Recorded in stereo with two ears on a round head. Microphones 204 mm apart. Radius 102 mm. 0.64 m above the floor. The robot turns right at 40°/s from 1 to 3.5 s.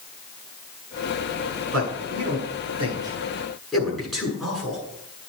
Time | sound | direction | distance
1.7 | a man speaking | 70° right (ahead or behind) | 8.5 m